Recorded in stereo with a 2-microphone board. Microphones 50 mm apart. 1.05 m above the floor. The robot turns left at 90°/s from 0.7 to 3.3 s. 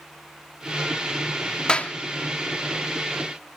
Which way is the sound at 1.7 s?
20° left (ahead or behind).